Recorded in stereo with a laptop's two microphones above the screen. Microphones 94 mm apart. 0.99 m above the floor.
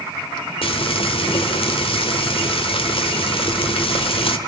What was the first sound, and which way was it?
Frying, 70° left (ahead or behind).